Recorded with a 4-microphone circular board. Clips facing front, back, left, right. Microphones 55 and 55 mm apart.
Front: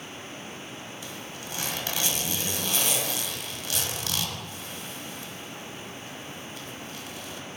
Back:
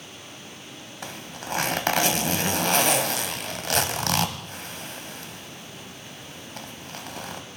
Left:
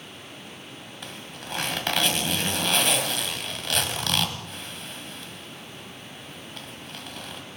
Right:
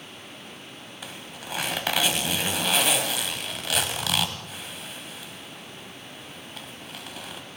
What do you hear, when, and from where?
1.0 s a zipper: 175° right, 1.7 m